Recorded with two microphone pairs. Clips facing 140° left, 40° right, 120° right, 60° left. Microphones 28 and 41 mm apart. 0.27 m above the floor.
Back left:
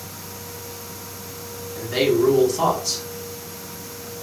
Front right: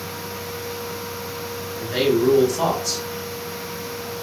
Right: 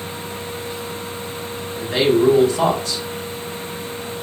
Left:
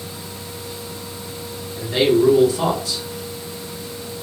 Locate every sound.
1.8 s a man speaking: 140° right, 2.5 m